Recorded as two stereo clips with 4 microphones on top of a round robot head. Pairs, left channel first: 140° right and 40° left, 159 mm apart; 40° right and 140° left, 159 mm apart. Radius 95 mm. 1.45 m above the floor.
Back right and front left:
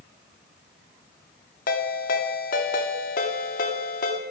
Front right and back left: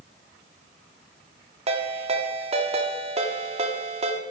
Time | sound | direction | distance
1.7 | a ringtone | 170° right | 1.4 m